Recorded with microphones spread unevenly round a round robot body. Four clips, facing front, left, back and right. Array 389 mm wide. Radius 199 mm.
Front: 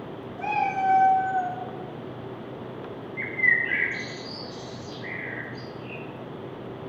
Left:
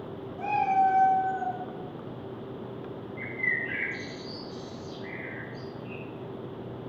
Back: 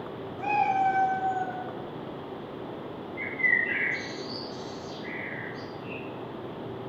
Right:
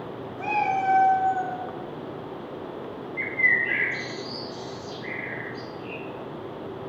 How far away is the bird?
About 0.6 m.